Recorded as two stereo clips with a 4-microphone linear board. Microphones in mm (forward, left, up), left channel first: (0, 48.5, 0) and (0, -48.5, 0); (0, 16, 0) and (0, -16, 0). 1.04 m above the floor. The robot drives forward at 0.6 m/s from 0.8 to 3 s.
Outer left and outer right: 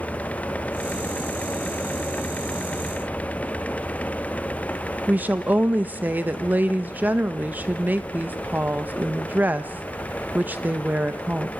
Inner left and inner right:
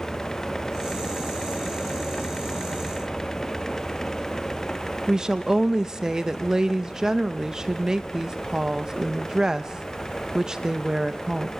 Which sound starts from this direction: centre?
A woman speaking, at 5.1 s.